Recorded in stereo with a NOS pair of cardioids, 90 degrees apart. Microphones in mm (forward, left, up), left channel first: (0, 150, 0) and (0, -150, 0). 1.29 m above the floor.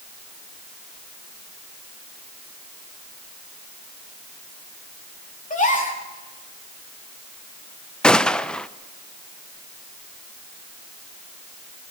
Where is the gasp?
25° left, 3.5 m.